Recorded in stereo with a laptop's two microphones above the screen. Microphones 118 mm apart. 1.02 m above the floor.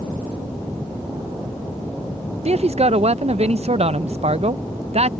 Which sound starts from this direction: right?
A man speaking, at 2.5 s.